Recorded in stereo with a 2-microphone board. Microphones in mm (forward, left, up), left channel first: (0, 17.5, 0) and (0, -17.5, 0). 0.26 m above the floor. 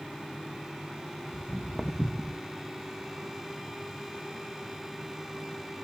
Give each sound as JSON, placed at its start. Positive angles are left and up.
{"t": 1.3, "sound": "footsteps", "side_deg": 15, "distance_m": 1.4}